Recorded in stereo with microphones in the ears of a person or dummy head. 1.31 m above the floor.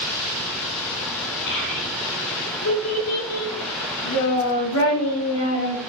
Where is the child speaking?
70° left (ahead or behind), 4.5 m; by 5.8 s 60° left (ahead or behind), 2.5 m.